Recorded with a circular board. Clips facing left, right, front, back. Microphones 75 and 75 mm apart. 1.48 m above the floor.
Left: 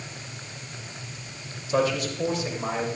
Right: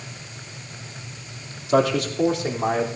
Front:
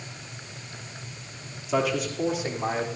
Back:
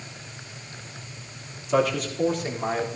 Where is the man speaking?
90° right, 3 m; by 2.9 s 80° right, 3.5 m.